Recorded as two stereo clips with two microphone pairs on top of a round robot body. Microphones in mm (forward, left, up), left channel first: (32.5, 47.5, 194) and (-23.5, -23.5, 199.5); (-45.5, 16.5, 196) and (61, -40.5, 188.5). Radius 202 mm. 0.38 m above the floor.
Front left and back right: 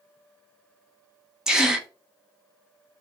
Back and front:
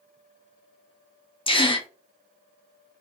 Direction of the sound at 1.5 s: 145° left.